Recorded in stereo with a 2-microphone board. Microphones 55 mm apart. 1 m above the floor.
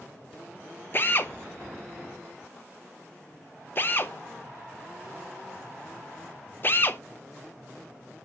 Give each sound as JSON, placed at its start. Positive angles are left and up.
{"t": 0.9, "sound": "a drill", "side_deg": 40, "distance_m": 0.6}